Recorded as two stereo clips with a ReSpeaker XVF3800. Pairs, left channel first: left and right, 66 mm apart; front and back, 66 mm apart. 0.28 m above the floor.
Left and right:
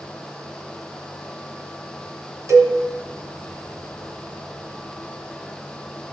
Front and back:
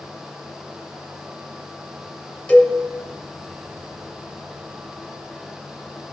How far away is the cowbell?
About 1.5 m.